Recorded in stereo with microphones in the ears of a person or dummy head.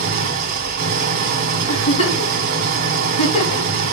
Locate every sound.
0.0 s an engine running: 50° right (ahead or behind), 1.1 m
1.7 s a giggle: 30° left (ahead or behind), 3 m